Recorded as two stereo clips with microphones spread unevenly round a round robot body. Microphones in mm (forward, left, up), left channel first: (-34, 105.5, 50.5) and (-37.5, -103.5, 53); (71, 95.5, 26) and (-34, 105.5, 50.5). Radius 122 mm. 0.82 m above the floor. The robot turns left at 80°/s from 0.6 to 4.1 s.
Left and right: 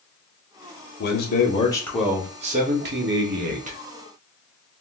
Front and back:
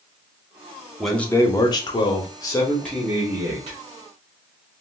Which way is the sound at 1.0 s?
75° left.